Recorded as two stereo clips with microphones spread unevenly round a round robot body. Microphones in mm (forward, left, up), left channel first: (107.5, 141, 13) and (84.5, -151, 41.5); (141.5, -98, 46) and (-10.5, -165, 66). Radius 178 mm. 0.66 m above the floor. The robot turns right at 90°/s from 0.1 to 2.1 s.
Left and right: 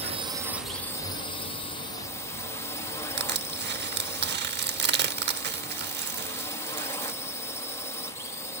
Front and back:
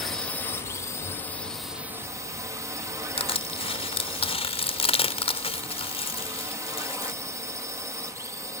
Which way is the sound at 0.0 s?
45° right.